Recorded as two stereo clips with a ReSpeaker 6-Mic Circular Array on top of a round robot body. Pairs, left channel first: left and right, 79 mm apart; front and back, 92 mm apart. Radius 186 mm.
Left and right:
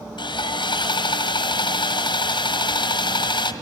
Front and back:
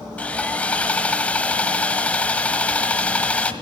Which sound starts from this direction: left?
Sawing, at 0.2 s.